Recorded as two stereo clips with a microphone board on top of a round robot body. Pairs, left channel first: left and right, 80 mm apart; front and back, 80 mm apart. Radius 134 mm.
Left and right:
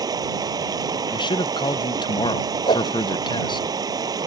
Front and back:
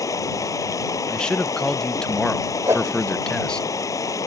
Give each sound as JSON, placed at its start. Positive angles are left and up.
{"t": 0.0, "sound": "running water", "azimuth_deg": -50}
{"t": 1.1, "sound": "a man speaking", "azimuth_deg": 80}
{"t": 2.7, "sound": "a whoosh", "azimuth_deg": 120}